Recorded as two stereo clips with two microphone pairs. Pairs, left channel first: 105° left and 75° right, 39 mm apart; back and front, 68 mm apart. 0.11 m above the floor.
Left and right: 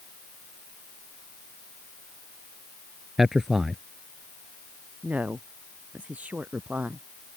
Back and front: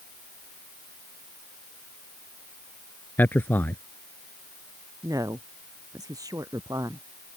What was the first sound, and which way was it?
A man speaking, 155° right.